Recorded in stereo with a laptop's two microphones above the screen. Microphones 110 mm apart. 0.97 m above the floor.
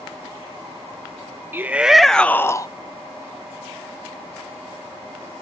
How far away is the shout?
About 0.7 m.